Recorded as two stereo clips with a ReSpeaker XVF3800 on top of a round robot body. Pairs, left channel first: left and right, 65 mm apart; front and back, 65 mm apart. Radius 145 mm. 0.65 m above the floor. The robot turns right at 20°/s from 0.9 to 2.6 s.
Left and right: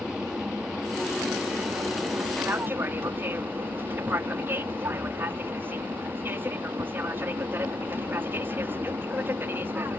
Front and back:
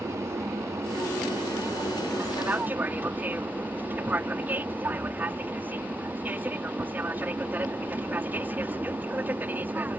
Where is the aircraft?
165° right; by 10.0 s 130° right.